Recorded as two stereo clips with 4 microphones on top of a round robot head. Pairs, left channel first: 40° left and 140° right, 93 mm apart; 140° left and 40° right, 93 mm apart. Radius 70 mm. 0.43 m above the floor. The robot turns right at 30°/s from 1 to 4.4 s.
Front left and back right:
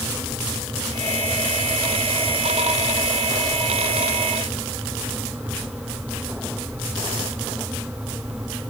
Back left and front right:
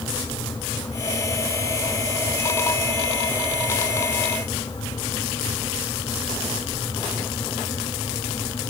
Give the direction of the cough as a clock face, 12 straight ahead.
I don't hear a cough.